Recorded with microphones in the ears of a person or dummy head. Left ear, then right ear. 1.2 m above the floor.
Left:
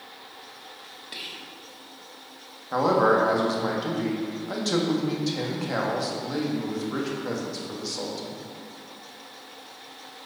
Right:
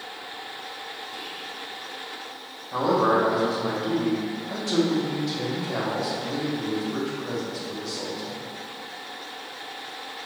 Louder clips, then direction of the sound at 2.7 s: Left 1 dB; 75° left (ahead or behind).